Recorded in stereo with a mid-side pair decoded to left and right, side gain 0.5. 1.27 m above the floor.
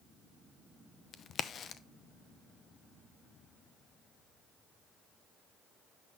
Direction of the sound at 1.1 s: 50° left.